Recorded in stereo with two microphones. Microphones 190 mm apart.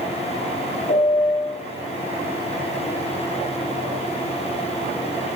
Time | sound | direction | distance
0.9 | a piano | 40° left (ahead or behind) | 1.5 m